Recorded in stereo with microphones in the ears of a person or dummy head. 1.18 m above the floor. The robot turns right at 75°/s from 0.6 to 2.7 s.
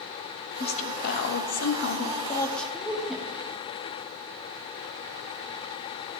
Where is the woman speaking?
30° left, 1.2 m; by 3.2 s 175° right, 1.2 m.